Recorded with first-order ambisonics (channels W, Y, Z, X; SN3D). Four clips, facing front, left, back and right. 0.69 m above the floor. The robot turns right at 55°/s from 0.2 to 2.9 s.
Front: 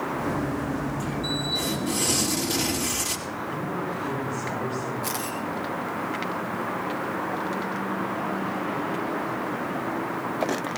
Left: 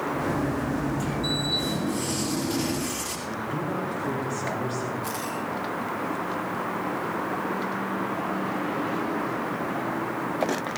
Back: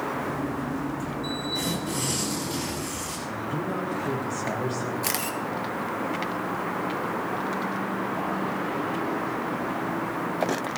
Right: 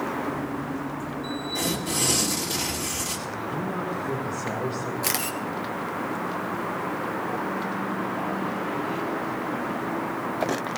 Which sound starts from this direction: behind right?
A camera shutter, at 5.0 s.